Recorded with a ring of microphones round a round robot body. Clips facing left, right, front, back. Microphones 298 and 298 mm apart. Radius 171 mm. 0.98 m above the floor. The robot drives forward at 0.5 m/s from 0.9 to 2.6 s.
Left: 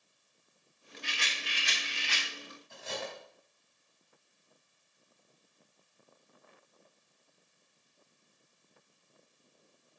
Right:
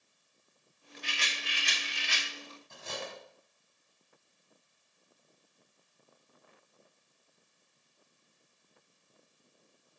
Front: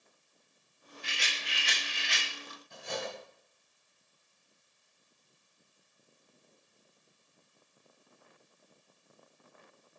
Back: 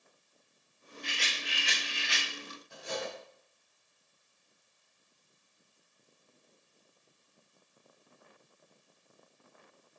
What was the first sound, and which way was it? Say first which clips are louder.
A rattle: right 1 dB, back 3 dB; 85° right.